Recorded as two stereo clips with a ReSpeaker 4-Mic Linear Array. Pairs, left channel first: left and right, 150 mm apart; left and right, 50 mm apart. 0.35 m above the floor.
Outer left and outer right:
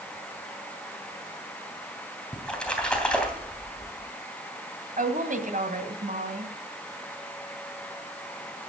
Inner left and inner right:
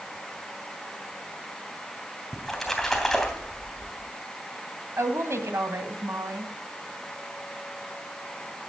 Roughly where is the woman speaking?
Right.